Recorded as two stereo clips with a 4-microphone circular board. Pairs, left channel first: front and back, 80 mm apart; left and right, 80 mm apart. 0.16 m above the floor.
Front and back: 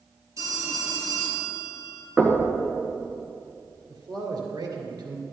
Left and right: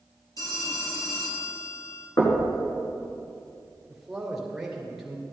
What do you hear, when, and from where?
0.4 s a phone ringing: 135° left, 2.5 m
2.2 s knocking: 110° left, 2.0 m
3.9 s a man speaking: straight behind, 2.5 m